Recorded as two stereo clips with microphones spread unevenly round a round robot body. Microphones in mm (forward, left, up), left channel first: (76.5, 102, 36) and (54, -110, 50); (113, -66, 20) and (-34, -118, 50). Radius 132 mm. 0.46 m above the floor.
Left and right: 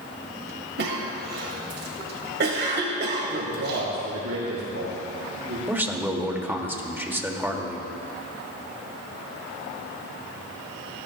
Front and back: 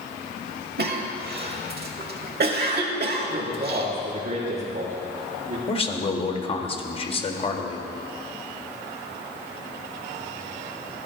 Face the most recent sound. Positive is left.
turn(degrees=-15)